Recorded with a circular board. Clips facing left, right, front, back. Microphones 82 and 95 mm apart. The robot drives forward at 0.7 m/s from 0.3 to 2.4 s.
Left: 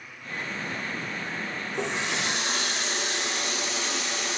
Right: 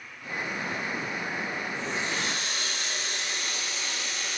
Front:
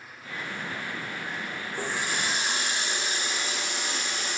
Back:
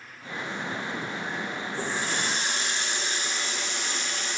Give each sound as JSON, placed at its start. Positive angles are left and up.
{"t": 1.7, "sound": "a running tap", "azimuth_deg": 75, "distance_m": 7.0}